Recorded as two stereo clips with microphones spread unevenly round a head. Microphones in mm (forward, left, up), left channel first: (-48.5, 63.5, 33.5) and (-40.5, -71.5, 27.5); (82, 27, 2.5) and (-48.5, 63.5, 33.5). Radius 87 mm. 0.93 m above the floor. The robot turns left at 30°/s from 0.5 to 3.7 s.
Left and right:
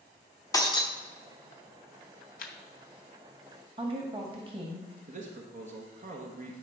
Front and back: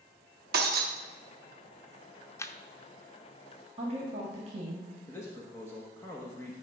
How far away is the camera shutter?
About 0.8 m.